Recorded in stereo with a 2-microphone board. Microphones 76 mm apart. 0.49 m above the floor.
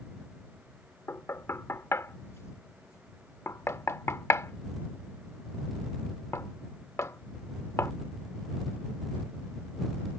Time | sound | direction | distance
1.1 | knocking | 35° left (ahead or behind) | ?